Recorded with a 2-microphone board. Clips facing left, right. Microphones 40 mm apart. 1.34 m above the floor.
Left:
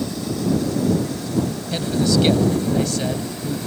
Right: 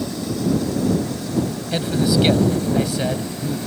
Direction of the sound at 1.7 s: 15° right (ahead or behind).